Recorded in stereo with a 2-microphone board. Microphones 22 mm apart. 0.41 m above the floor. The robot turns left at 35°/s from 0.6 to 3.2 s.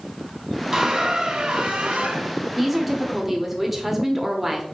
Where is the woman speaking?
Centre (ahead or behind), 0.8 m; by 4.6 s 10° right (ahead or behind), 0.8 m.